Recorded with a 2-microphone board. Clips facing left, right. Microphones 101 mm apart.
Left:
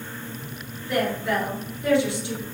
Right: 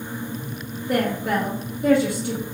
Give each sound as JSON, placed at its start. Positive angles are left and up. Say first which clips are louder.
{"t": 0.9, "sound": "a woman speaking", "louder": "right 2 dB", "side_deg": -50, "distance_m": 1.7}